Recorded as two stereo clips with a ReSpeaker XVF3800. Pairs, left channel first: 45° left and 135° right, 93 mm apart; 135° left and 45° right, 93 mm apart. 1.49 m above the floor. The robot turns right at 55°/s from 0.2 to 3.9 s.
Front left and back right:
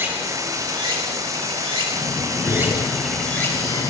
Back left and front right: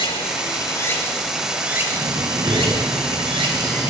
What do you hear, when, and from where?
0.0 s running water: 160° left, 5 m; by 3.9 s 5° left, 5 m
1.9 s breathing: 45° right, 6.5 m; by 3.9 s 65° left, 6.5 m